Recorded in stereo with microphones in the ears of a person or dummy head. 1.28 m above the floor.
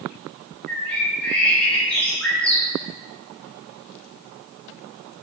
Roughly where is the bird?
Centre.